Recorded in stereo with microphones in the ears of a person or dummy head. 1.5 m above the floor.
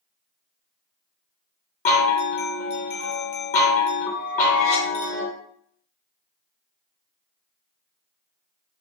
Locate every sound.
1.9 s a chime: 45° left (ahead or behind), 0.8 m